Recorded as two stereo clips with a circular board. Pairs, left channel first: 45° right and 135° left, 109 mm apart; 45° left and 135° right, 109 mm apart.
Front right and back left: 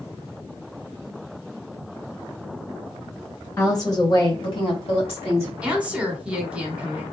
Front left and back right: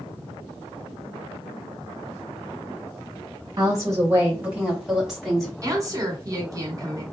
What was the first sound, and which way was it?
A woman speaking, 100° right.